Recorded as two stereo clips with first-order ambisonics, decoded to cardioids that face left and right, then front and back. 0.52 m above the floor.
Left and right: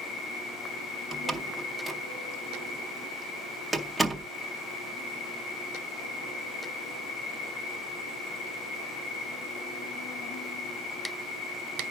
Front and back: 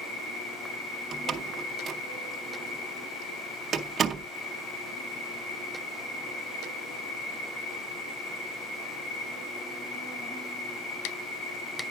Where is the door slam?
175° right, 0.7 m.